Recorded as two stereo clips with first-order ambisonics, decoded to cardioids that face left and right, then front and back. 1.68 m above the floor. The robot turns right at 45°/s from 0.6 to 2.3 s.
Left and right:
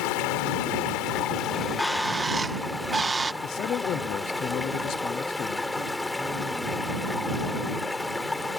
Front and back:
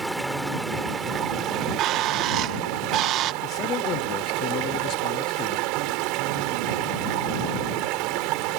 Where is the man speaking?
45° left.